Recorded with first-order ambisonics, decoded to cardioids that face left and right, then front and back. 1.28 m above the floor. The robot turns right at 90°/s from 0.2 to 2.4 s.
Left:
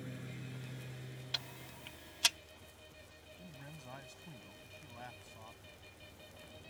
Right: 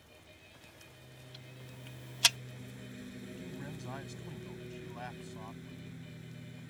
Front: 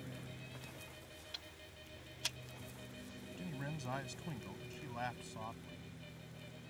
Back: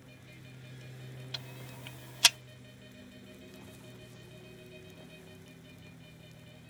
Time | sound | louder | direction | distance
0.0 | a lawn mower | left 7 dB, front 3 dB | 70° left | ?
1.3 | ticking | left 13 dB, back 8 dB | 115° left | ?
3.4 | a man speaking | right 6 dB, front 5 dB | 20° right | ?